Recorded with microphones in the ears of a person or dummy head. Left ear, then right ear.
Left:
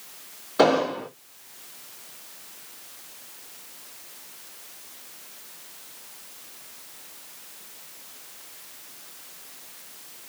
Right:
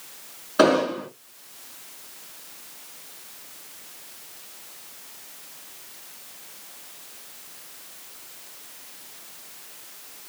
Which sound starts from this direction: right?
An explosion, at 0.6 s.